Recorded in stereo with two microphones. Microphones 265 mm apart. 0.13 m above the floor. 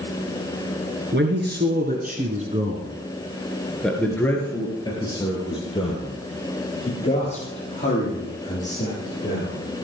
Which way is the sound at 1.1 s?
40° right (ahead or behind).